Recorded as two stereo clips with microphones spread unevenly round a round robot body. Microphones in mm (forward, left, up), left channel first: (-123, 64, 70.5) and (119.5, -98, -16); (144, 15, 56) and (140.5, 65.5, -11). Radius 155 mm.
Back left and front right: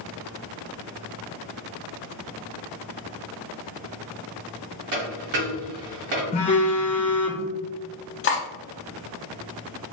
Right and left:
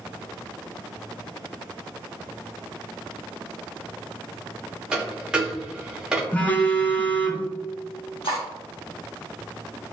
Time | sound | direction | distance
4.9 | a dropped coin | 5° left | 1.2 m
6.3 | a phone buzzing | 70° left | 0.6 m
8.2 | cutlery clinking | 155° right | 0.6 m